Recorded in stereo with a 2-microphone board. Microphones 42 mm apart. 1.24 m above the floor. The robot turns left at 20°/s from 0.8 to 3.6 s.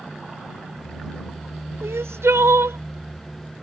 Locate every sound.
1.8 s crying: 85° right; by 2.8 s 75° right (ahead or behind)